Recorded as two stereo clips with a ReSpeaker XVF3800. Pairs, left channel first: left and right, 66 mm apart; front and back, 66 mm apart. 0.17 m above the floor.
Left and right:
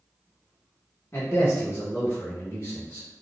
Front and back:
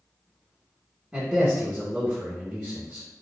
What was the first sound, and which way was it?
A man speaking, 120° left.